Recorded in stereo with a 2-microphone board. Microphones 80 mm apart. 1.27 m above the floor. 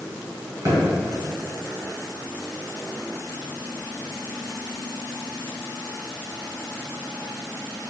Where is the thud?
50° right (ahead or behind), 1.6 m.